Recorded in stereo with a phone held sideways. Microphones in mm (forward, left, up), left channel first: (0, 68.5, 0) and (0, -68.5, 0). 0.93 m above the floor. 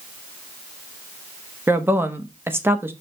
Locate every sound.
1.7 s a woman speaking: 15° right (ahead or behind), 1.0 m